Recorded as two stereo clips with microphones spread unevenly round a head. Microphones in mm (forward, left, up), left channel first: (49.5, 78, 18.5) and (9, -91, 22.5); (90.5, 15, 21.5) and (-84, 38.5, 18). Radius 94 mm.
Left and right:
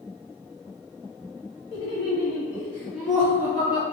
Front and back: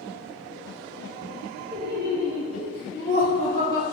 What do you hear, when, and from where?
1.7 s laughter: 140° left, 1.6 m; by 3.8 s 175° left, 2 m